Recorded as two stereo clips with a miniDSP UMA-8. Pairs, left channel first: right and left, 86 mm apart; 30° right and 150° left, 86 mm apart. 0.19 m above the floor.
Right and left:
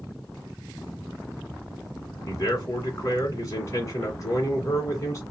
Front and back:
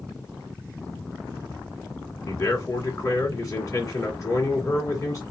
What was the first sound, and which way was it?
A man speaking, 55° right.